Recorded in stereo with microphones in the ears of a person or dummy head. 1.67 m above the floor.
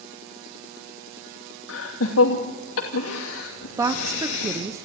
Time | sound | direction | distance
1.7 | laughter | 80° left | 2.5 m
3.8 | a woman speaking | 15° right (ahead or behind) | 1.0 m